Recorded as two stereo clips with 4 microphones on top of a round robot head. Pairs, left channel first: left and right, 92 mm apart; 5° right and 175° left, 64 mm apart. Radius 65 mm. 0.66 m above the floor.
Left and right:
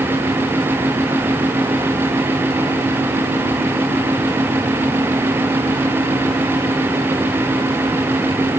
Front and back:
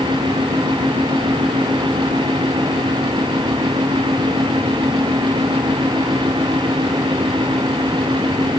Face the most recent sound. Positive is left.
No sound to turn to.